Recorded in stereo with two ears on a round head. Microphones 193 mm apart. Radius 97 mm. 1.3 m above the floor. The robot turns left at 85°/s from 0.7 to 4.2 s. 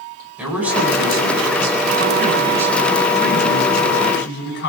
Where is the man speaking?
5° right, 8.5 m; by 4.7 s 55° left, 8.5 m.